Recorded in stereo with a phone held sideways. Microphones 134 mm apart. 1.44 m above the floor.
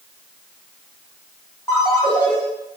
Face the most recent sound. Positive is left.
turn(degrees=20)  # may be behind; listen again after turning